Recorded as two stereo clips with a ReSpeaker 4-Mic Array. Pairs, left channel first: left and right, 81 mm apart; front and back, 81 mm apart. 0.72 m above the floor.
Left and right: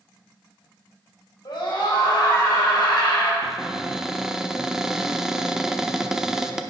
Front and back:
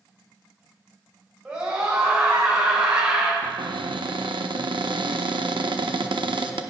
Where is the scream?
105° left, 3.5 m.